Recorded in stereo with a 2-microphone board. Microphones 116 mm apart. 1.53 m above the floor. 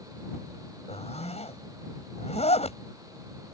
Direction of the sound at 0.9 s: 65° left (ahead or behind).